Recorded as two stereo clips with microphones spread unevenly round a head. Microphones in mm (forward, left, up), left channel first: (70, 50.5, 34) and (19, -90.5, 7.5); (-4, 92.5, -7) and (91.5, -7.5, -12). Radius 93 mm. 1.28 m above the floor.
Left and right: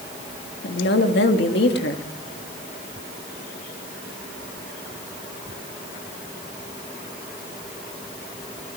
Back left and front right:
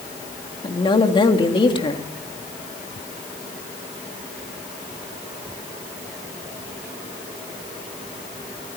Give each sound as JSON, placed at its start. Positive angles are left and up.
{"t": 0.6, "sound": "a woman speaking", "azimuth_deg": 80, "distance_m": 3.0}